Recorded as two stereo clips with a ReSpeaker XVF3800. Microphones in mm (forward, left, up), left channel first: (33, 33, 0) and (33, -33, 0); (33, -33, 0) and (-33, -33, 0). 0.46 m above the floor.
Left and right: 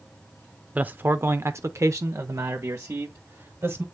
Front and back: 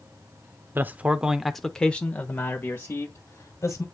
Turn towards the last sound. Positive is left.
turn(degrees=-45)